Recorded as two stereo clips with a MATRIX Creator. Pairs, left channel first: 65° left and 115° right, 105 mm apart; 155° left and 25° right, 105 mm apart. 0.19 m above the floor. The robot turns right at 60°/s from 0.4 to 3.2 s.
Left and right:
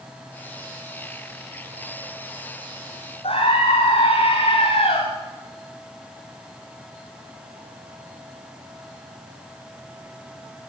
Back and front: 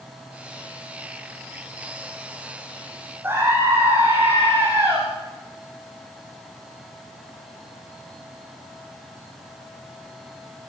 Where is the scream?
50° left, 9.5 m.